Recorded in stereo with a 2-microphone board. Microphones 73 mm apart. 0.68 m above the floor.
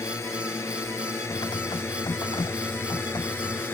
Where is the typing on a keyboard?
65° left (ahead or behind).